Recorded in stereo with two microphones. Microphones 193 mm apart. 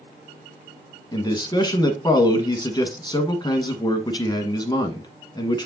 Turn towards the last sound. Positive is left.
turn(degrees=25)  # may be behind; listen again after turning